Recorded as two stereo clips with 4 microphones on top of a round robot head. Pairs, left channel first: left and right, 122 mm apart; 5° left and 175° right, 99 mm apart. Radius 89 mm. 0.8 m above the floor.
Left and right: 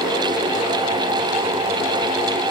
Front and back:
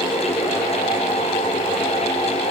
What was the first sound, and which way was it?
Only background noise.